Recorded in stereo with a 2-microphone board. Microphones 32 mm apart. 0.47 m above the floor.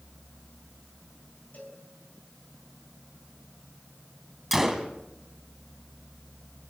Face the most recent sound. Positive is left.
turn(degrees=-5)  # may be behind; listen again after turning